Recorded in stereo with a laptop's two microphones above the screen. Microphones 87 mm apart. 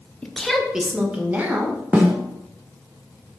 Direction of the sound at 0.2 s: 15° left (ahead or behind).